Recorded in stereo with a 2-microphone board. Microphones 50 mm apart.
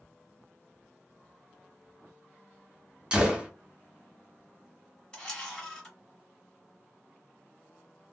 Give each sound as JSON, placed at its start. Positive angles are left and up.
{"t": 3.1, "sound": "a gunshot", "side_deg": -20, "distance_m": 0.8}
{"t": 5.1, "sound": "a camera shutter", "side_deg": 15, "distance_m": 1.6}